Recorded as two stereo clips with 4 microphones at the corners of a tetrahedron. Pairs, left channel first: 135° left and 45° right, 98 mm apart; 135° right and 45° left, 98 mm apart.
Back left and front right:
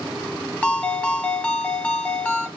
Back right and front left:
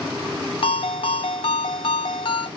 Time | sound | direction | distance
0.6 | a ringtone | 155° right | 1.0 m